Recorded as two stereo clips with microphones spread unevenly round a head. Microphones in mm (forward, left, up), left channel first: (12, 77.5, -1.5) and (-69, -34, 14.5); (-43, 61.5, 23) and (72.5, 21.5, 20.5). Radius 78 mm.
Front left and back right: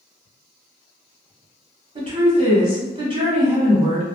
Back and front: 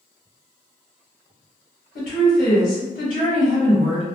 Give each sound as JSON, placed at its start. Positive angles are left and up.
{"t": 1.9, "sound": "a woman speaking", "azimuth_deg": 180, "distance_m": 1.4}